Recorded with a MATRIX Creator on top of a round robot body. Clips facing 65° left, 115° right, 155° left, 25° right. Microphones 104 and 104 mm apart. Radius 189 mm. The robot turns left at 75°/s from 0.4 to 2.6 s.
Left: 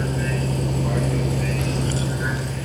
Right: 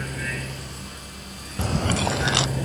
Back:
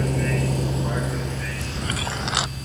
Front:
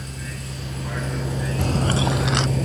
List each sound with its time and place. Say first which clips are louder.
0.0 s a vehicle: left 8 dB, back 12 dB; 125° left; by 2.6 s 40° right
1.6 s chewing: even, front 11 dB; 60° right; by 2.5 s 125° right